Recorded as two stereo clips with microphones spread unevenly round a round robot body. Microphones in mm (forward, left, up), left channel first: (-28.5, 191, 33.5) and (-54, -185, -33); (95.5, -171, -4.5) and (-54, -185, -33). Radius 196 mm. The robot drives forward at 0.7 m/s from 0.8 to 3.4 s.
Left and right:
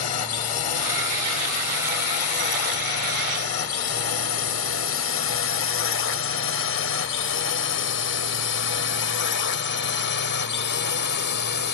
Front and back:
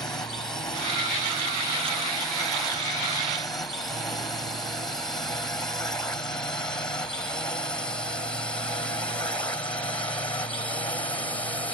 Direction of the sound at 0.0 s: 80° left.